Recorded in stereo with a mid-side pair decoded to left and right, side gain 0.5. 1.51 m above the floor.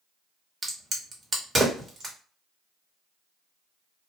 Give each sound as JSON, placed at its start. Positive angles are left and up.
{"t": 0.6, "sound": "a crack", "azimuth_deg": -25, "distance_m": 1.5}